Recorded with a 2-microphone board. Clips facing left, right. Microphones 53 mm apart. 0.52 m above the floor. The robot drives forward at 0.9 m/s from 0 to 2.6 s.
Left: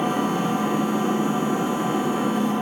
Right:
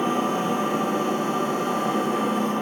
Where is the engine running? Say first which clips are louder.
Even; 15° left (ahead or behind), 1.3 m; by 2.6 s 5° left (ahead or behind), 3.5 m.